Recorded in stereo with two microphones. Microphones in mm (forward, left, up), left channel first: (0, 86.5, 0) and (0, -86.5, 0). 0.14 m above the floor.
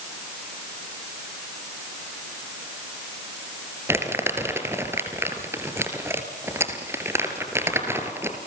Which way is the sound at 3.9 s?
15° right (ahead or behind).